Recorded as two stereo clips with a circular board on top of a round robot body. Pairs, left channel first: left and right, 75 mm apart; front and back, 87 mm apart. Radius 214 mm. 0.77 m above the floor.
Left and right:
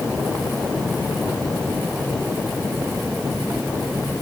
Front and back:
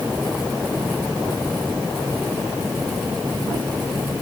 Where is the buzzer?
I don't hear a buzzer.